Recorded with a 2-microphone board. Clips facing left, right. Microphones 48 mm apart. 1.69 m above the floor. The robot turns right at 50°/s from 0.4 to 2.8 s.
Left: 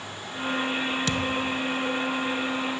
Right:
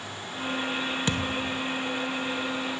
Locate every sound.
1.1 s a thud: 20° right (ahead or behind), 1.0 m; by 1.7 s 15° right (ahead or behind), 1.0 m